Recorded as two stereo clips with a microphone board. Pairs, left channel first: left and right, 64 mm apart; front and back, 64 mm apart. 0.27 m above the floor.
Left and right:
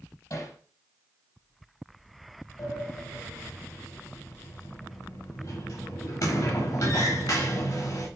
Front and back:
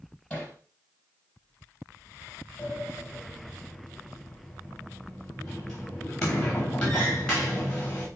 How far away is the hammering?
About 6 m.